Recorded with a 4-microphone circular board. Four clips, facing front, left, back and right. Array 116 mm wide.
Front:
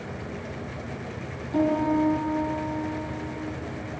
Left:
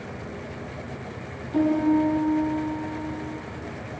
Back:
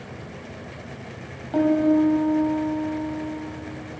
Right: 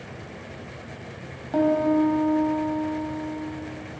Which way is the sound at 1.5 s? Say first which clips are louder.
Even, back 4 dB; 120° right.